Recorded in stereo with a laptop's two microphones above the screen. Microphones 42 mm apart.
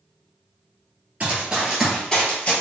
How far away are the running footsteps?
About 1.2 m.